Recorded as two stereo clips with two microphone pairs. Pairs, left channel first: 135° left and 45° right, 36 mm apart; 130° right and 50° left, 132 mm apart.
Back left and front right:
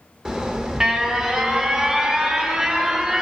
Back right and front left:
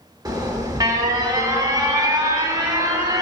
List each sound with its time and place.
0.2 s an alarm: 10° left, 1.2 m